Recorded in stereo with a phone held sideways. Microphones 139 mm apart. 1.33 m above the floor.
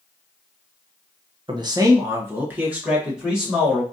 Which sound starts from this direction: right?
A man speaking, at 1.5 s.